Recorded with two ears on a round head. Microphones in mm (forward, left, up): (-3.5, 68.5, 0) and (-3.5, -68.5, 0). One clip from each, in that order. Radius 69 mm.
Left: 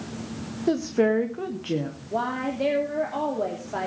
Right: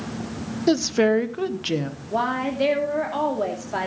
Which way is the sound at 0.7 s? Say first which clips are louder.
Right 3 dB; 65° right (ahead or behind).